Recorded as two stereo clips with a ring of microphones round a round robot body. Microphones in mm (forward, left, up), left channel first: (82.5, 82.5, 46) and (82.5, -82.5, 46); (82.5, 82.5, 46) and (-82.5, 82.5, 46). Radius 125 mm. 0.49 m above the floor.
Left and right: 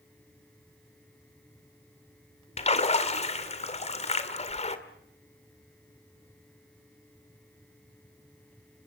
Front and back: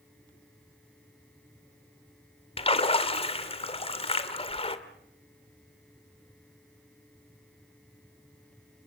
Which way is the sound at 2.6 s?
50° left.